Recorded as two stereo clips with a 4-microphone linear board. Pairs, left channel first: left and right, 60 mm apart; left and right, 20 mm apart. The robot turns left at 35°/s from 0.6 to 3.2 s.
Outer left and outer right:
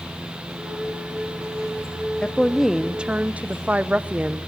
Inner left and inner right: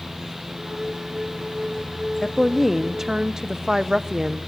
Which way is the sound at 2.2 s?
10° left.